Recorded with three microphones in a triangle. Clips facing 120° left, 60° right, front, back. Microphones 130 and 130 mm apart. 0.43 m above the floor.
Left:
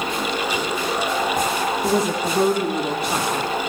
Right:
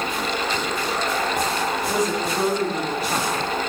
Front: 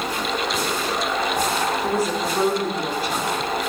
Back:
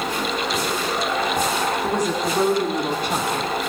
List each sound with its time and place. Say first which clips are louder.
1.8 s a woman speaking: left 3 dB, even; 85° left, 7.5 m